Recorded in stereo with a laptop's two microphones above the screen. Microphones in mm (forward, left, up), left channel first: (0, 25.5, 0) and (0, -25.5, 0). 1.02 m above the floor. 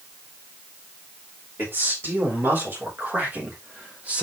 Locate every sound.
1.6 s a man speaking: 45° right (ahead or behind), 5 m; by 4.2 s 25° right (ahead or behind), 3 m